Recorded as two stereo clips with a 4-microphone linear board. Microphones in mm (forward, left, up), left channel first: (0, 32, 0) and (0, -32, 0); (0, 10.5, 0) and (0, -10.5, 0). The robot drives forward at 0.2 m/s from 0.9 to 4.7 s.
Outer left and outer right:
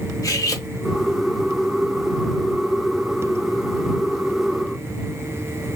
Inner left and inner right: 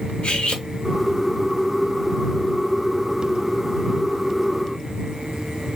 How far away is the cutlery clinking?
About 1.1 m.